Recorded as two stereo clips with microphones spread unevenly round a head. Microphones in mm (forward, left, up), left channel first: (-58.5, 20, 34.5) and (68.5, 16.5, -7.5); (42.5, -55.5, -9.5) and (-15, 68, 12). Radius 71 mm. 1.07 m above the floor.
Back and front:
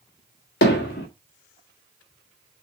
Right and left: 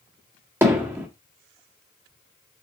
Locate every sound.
0.6 s hammering: 170° right, 1.7 m